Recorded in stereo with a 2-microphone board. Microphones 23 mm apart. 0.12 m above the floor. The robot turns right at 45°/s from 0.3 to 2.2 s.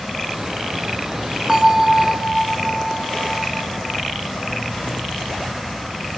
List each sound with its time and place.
1.5 s a bell: 25° right (ahead or behind), 0.5 m; by 3.9 s 30° right (ahead or behind), 0.5 m